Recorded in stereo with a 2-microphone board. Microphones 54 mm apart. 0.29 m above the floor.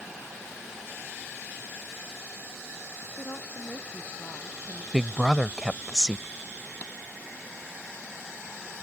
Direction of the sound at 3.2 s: 50° left (ahead or behind).